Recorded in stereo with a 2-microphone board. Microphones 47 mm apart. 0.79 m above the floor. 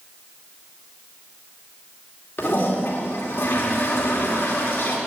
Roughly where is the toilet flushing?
Left.